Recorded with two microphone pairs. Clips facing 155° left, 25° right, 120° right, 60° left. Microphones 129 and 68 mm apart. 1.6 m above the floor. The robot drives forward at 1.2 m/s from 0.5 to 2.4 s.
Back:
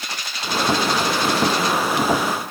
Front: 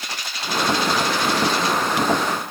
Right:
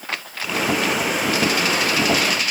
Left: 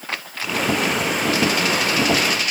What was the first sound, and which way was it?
Only background noise.